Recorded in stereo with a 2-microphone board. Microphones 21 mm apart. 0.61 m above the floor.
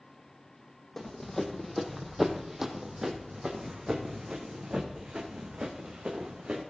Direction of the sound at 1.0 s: 15° left (ahead or behind).